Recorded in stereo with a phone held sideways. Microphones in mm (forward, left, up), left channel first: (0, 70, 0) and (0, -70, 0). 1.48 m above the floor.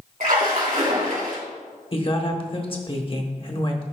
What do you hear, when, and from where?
0.2 s a splash: 75° right (ahead or behind), 3 m
1.9 s a woman speaking: 40° left (ahead or behind), 1.0 m